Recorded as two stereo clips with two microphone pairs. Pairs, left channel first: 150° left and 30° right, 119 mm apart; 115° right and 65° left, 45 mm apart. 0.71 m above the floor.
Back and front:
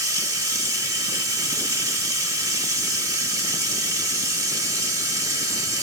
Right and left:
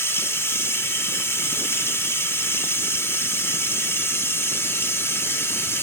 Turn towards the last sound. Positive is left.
turn(degrees=-90)